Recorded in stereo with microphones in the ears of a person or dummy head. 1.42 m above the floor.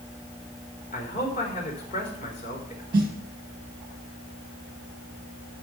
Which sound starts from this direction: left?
A man speaking, at 0.9 s.